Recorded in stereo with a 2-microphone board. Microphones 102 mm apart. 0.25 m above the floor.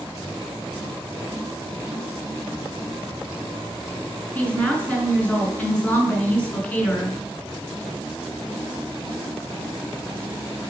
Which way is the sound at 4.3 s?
15° left (ahead or behind).